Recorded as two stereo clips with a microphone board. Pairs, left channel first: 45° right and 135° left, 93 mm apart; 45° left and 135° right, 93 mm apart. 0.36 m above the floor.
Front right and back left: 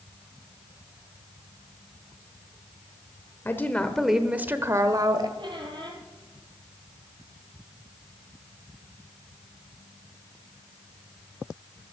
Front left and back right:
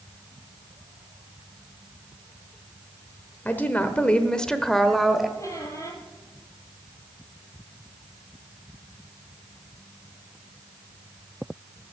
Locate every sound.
3.5 s a woman speaking: 10° right, 1.1 m; by 5.3 s 140° left, 1.4 m
5.4 s a squeak: 100° left, 2.5 m